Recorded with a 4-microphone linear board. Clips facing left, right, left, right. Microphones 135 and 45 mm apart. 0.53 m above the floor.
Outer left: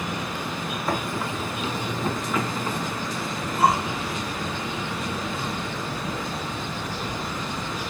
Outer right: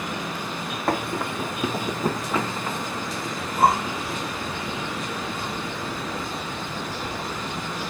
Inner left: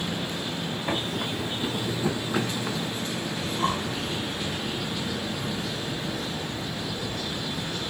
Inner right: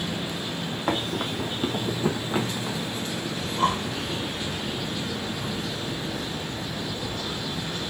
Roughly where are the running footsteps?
Right.